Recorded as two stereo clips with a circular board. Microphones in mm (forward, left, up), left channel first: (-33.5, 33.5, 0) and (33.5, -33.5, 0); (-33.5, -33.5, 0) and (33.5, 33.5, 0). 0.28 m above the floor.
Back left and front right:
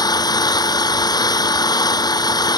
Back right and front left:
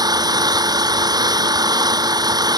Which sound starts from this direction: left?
An engine running, at 0.0 s.